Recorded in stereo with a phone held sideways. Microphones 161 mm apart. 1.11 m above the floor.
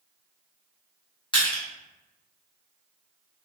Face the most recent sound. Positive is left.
turn(degrees=30)  # may be behind; listen again after turning